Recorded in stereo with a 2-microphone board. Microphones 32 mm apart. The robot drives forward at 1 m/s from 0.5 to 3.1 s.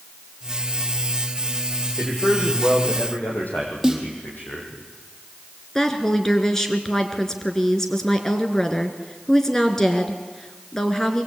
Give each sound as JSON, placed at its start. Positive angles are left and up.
{"t": 2.0, "sound": "a man speaking", "side_deg": 75, "distance_m": 7.5}
{"t": 3.8, "sound": "a snare drum", "side_deg": -10, "distance_m": 4.0}
{"t": 5.8, "sound": "a woman speaking", "side_deg": 20, "distance_m": 3.0}